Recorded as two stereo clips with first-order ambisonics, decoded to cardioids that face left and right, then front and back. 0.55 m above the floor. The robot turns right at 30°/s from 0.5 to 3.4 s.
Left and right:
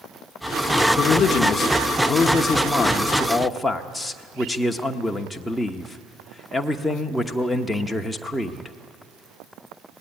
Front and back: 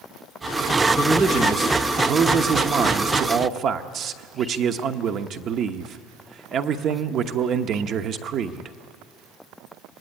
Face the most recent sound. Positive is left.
turn(degrees=170)